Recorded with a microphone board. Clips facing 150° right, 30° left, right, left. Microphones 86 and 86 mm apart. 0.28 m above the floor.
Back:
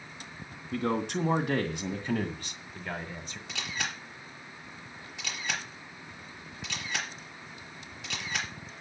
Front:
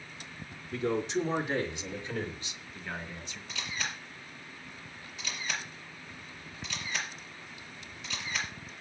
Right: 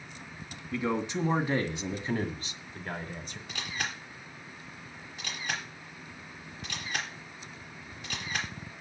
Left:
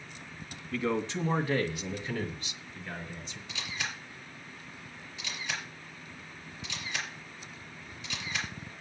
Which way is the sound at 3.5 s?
130° right.